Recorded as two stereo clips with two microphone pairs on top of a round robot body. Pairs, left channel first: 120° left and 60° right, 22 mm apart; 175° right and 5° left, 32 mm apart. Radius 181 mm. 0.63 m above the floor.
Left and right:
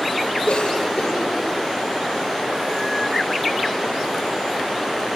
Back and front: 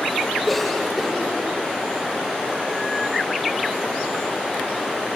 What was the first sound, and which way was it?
A cough, 100° left.